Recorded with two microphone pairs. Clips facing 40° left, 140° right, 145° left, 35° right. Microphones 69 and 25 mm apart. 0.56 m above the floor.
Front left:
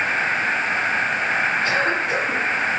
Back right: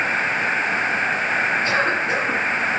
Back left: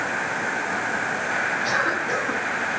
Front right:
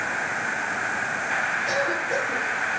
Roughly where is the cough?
Behind.